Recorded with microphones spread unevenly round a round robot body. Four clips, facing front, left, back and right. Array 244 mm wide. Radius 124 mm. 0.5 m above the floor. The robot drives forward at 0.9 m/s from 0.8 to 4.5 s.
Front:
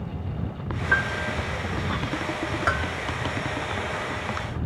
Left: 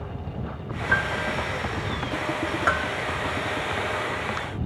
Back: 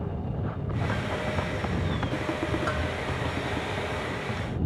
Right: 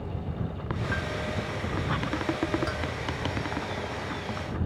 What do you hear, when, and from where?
0.9 s a piano: 45° left
2.7 s a bell: 55° left; by 2.9 s 60° left